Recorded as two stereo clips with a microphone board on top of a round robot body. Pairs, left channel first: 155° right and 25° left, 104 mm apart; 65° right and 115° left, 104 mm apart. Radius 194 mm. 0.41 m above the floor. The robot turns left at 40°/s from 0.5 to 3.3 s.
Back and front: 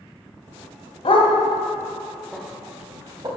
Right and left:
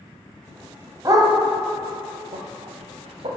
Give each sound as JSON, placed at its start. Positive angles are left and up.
{"t": 1.1, "sound": "a dog barking", "azimuth_deg": 170, "distance_m": 1.6}